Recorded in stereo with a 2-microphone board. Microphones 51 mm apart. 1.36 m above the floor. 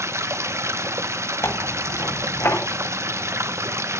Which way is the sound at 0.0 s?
65° right (ahead or behind).